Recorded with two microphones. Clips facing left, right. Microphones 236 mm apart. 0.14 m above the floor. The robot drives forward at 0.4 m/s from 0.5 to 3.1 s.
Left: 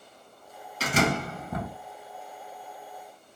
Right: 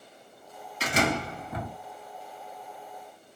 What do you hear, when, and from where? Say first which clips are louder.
0.8 s a door slam: left 1 dB; 40° left (ahead or behind), 1.6 m; by 1.7 s 45° left (ahead or behind), 1.5 m